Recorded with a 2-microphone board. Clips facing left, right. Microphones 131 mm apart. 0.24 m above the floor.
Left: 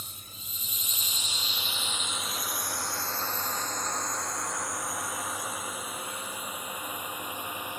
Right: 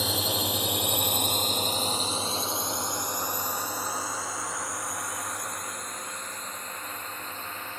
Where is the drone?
75° right (ahead or behind); by 7.8 s 15° left (ahead or behind).